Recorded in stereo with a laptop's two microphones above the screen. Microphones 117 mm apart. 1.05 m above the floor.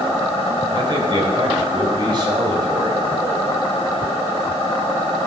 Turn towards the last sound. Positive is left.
turn(degrees=-40)  # may be behind; listen again after turning